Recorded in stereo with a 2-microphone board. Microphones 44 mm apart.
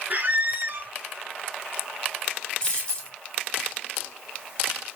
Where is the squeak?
45° right (ahead or behind), 0.6 m.